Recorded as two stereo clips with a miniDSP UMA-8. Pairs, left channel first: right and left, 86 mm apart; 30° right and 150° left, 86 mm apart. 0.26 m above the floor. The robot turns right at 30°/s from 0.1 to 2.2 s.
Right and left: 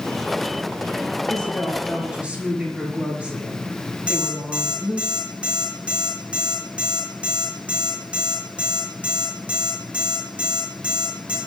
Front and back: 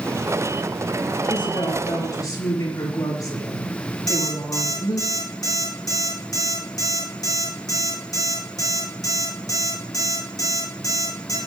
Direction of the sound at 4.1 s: 15° left.